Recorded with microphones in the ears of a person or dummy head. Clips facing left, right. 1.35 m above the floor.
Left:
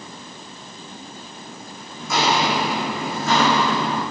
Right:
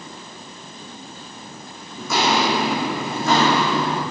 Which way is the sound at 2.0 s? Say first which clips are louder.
Right 1 dB; 70° right (ahead or behind).